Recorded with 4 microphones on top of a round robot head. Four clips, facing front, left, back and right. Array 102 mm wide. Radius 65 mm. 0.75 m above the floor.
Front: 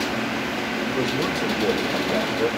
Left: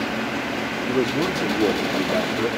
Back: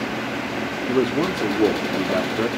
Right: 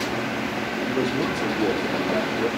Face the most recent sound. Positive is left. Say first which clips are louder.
# left 3 dB, back 6 dB
turn(degrees=155)